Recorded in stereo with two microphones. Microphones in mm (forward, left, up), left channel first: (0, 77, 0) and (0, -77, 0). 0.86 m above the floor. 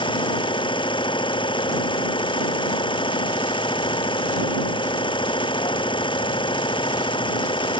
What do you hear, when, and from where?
0.0 s an engine running: 30° left (ahead or behind)